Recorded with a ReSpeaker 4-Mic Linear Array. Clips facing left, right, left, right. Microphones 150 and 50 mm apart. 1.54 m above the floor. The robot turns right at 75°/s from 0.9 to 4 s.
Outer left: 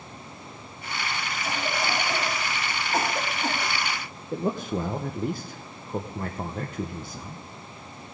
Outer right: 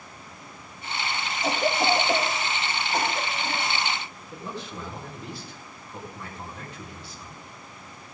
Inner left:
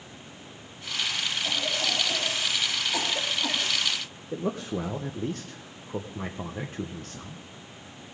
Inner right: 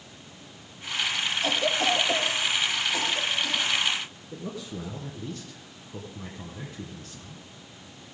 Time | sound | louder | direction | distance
1.4 | a cough | outer right 7 dB, inner right 6 dB | 75° right (ahead or behind) | 2.5 m
4.3 | a man speaking | outer left 10 dB, inner left 8 dB | 50° left (ahead or behind) | 0.9 m